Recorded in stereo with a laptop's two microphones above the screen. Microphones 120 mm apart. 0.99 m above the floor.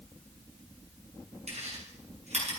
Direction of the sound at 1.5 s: 65° right (ahead or behind).